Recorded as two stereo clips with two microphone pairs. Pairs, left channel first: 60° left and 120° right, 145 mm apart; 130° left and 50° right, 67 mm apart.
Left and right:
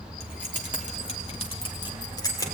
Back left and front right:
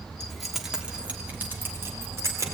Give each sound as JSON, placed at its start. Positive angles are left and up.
{"t": 0.2, "sound": "keys jangling", "azimuth_deg": 45, "distance_m": 3.0}